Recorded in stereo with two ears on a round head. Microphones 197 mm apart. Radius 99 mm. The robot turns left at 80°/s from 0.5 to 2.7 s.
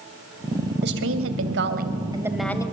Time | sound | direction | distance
0.8 | a woman speaking | 50° right | 2.5 m